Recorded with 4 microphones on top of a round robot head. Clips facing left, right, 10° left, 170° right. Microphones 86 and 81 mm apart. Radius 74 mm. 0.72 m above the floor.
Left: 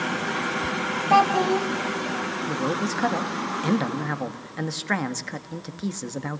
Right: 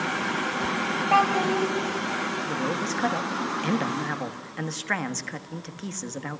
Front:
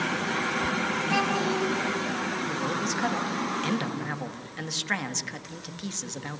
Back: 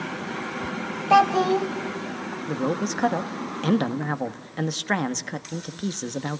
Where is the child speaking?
165° left, 2.5 m.